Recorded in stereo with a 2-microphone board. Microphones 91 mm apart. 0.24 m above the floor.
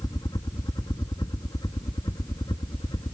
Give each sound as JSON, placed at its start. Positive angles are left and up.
{"t": 0.0, "sound": "a helicopter", "side_deg": 40}